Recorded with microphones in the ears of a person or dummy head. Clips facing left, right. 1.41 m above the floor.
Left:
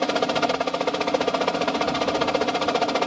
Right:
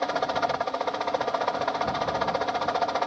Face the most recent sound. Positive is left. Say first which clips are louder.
# left 4 dB
turn(degrees=40)  # may be behind; listen again after turning